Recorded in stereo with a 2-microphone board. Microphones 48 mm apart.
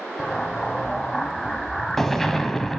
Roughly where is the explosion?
Centre.